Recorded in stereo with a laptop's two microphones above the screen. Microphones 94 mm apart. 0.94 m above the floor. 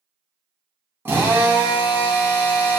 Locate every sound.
1.1 s a drill: 25° right (ahead or behind), 1.6 m